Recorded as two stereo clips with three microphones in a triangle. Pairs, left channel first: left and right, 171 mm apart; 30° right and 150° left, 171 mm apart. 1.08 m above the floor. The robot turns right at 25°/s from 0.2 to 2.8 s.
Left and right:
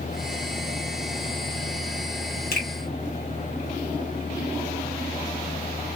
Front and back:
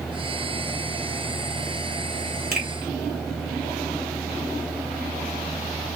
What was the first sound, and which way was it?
A finger snap, 120° left.